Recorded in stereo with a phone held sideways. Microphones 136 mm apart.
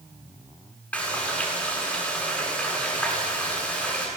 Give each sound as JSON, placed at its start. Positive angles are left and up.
{"t": 0.9, "sound": "frying", "side_deg": 10, "distance_m": 8.5}